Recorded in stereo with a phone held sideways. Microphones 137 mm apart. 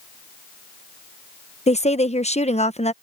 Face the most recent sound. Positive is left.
turn(degrees=50)  # may be behind; listen again after turning